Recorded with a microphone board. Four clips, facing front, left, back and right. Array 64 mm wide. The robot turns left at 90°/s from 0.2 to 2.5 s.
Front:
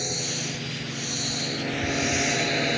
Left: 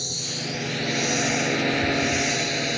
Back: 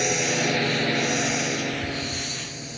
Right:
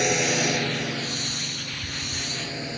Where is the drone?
130° right; by 2.8 s 25° left.